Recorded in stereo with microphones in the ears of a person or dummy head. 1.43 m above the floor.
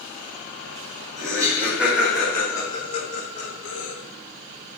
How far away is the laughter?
About 1.9 m.